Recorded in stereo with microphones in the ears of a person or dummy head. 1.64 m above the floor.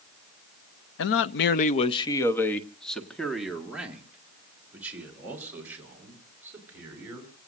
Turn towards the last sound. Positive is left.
turn(degrees=-10)  # may be behind; listen again after turning